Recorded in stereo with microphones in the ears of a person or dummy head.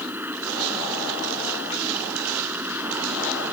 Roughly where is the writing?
I don't hear writing.